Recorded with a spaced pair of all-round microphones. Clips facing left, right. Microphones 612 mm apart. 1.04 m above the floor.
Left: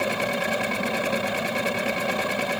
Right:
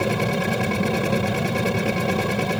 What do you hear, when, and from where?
0.0 s a machine running: 65° right (ahead or behind)